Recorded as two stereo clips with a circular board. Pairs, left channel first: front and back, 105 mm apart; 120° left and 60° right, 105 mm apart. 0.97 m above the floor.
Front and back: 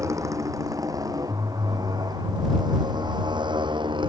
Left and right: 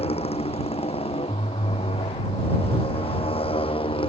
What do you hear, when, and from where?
0.0 s a motorcycle: 120° left; by 4.1 s 145° left